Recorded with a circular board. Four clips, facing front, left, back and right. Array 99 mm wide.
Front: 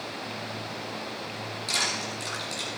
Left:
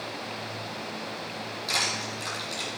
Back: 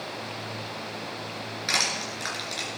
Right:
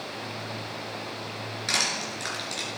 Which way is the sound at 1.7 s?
150° right.